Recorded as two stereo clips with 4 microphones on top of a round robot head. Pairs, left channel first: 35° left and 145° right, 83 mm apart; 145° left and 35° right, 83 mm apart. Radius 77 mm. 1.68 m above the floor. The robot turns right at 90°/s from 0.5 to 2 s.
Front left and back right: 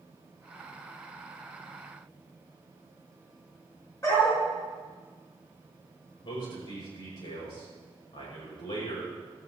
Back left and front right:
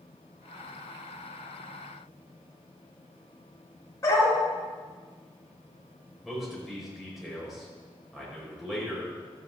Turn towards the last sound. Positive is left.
turn(degrees=55)